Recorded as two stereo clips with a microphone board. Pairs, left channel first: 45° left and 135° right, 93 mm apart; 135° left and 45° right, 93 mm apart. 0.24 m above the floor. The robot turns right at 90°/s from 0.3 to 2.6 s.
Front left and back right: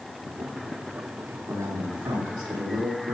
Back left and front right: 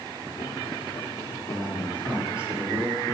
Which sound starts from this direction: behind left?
A man speaking, at 1.5 s.